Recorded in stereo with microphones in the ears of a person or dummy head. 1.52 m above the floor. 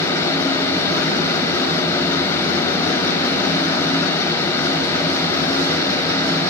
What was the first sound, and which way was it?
A fan, 20° left (ahead or behind).